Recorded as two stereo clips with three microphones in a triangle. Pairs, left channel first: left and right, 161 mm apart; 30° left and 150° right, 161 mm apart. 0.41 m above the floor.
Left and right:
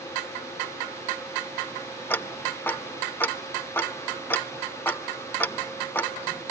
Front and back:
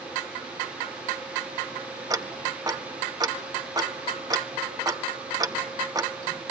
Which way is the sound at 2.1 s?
160° left.